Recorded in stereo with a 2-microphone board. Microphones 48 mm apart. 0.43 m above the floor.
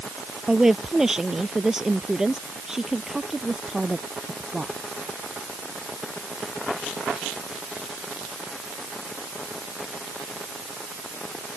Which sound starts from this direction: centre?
A woman speaking, at 0.5 s.